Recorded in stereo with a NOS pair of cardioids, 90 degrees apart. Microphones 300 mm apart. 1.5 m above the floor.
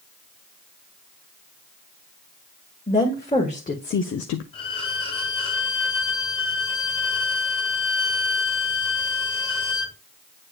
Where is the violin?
15° left, 2.5 m.